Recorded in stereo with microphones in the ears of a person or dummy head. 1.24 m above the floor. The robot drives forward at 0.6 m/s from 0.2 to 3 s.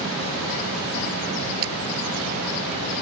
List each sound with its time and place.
1.6 s a camera shutter: 55° right (ahead or behind)